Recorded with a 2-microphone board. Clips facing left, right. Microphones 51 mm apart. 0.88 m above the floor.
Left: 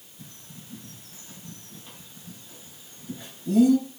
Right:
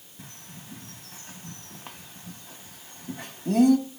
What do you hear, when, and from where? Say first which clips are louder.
0.2 s a bird: right 1 dB; 65° right (ahead or behind), 0.7 m